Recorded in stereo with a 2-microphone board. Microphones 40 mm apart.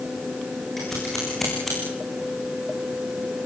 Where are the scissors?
10° left (ahead or behind), 10 m.